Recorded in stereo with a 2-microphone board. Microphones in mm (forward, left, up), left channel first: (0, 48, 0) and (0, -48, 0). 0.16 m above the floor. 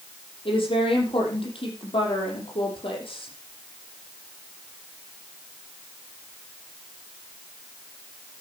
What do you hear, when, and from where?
0.5 s a woman speaking: 70° left (ahead or behind), 6.5 m